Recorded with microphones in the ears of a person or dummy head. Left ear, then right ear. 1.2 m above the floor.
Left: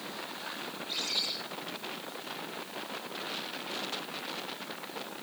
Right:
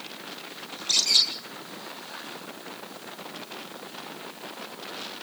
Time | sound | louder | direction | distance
0.7 | a bird | right 12 dB | 80° right | 8 m